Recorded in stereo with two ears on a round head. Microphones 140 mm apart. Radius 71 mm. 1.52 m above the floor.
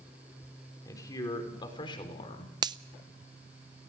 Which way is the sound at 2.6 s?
25° right (ahead or behind).